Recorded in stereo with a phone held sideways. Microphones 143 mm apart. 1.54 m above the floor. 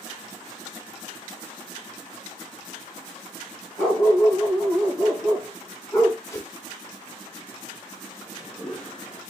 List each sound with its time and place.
3.8 s a dog barking: 5° left (ahead or behind), 2 m
6.2 s a whoosh: 20° left (ahead or behind), 1.5 m
8.2 s a toilet flushing: 5° left (ahead or behind), 3 m